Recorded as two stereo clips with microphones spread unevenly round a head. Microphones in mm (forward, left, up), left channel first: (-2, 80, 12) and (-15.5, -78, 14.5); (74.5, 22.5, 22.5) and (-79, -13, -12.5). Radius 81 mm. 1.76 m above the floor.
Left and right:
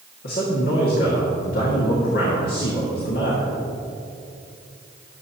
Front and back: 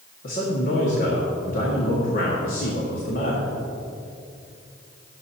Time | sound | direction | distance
0.2 | a man speaking | 50° left | 2 m